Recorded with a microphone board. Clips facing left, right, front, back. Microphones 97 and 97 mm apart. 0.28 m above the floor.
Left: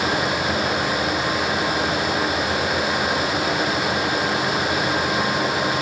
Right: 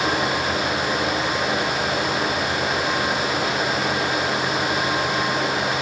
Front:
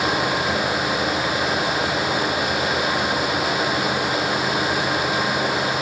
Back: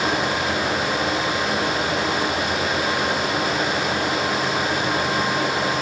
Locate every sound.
Only background noise.